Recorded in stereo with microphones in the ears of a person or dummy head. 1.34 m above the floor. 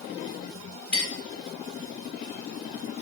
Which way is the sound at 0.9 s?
55° left (ahead or behind).